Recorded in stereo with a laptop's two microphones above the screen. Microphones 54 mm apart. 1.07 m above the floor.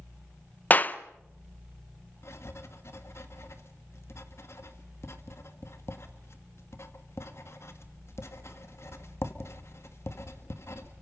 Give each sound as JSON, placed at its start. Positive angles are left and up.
{"t": 0.7, "sound": "a clap", "side_deg": 35, "distance_m": 0.6}
{"t": 2.2, "sound": "writing", "side_deg": 55, "distance_m": 1.9}